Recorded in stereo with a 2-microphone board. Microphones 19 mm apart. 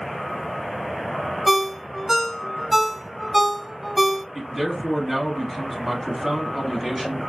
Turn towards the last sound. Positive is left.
turn(degrees=-20)  # may be behind; listen again after turning